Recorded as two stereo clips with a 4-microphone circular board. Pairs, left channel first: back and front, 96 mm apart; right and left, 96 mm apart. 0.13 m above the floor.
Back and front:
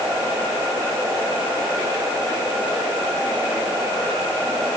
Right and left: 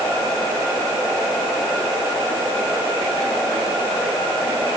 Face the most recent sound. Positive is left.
No sound to turn to.